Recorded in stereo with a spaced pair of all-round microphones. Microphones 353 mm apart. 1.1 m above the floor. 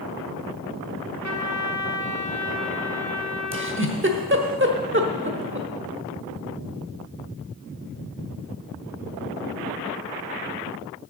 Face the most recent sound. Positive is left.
turn(degrees=-35)  # may be behind; listen again after turning